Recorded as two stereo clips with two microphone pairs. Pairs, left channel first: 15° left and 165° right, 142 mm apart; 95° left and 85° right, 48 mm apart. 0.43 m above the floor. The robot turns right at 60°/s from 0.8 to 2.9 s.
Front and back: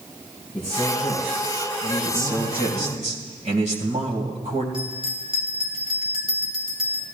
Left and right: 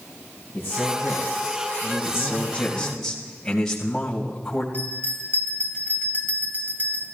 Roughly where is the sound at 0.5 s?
Left.